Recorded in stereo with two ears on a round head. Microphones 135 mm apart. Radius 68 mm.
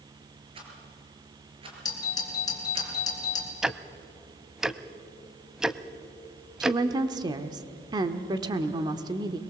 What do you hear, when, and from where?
0.6 s a rattle: 35° right (ahead or behind), 4.5 m
1.9 s a doorbell: 30° left (ahead or behind), 3.5 m
3.6 s ticking: 5° right (ahead or behind), 0.6 m
6.6 s a woman speaking: 25° right (ahead or behind), 1.1 m